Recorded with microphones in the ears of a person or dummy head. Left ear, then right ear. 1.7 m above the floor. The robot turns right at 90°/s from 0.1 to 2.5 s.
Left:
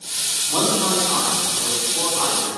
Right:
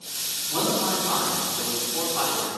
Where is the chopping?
I don't hear chopping.